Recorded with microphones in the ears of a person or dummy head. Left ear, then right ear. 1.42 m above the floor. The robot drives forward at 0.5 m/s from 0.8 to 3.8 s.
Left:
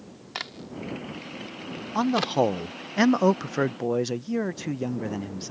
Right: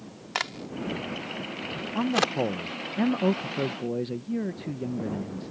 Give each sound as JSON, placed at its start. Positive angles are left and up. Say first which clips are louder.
{"t": 0.3, "sound": "a crack", "louder": "right 4 dB", "side_deg": -15}
{"t": 1.9, "sound": "a man speaking", "louder": "left 3 dB", "side_deg": 35}